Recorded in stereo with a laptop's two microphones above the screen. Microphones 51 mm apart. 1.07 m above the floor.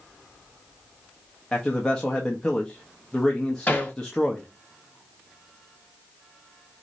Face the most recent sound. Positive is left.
turn(degrees=30)  # may be behind; listen again after turning